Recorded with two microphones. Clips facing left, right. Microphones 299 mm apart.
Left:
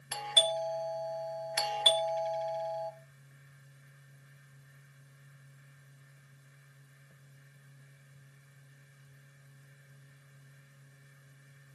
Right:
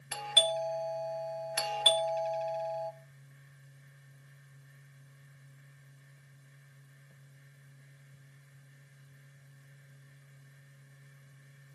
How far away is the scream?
I don't hear a scream.